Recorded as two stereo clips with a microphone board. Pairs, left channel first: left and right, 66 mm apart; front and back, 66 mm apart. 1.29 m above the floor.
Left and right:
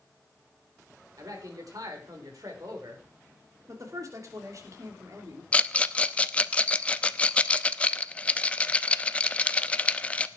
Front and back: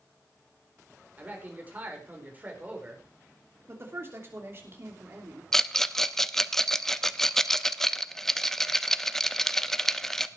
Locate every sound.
1.2 s a man speaking: 115° right, 4 m
3.7 s a woman speaking: 125° right, 3 m
5.5 s a rattle: 75° left, 0.6 m